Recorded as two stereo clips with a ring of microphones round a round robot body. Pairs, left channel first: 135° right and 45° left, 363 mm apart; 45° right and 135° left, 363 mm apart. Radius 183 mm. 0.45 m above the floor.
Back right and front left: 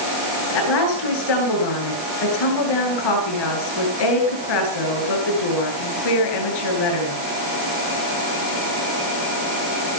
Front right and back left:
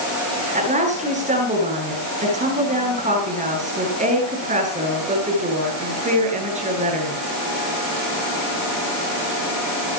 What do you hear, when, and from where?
0.5 s a woman speaking: 155° right, 9.5 m